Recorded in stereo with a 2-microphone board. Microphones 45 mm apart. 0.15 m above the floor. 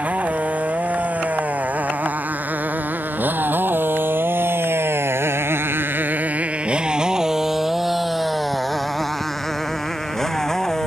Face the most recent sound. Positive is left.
turn(degrees=10)  # may be behind; listen again after turning